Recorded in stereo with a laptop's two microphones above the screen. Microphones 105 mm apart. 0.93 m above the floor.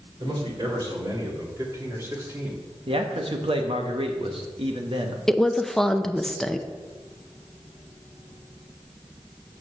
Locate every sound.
0.2 s a man speaking: 50° right (ahead or behind), 4 m; by 2.6 s 15° right (ahead or behind), 2 m
2.9 s a man speaking: 60° right (ahead or behind), 1.0 m
5.3 s a woman speaking: 5° left (ahead or behind), 0.7 m